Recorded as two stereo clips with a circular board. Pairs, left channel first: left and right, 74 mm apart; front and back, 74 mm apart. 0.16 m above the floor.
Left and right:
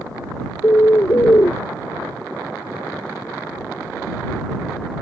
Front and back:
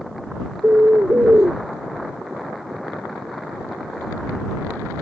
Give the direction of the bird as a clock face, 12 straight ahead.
8 o'clock.